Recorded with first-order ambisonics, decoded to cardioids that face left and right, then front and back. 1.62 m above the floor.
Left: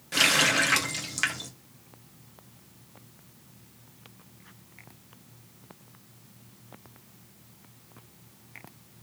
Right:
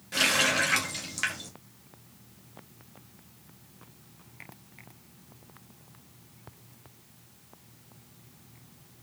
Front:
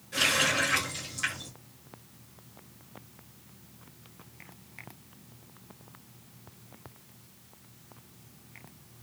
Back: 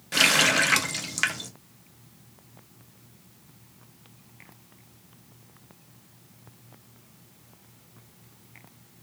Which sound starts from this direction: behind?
A running tap, at 0.1 s.